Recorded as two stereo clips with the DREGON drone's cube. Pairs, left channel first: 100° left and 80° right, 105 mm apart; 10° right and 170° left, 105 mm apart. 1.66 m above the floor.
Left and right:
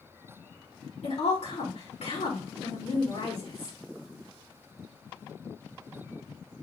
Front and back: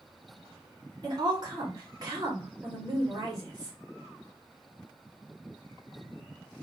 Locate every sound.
1.0 s a woman speaking: 115° left, 2.5 m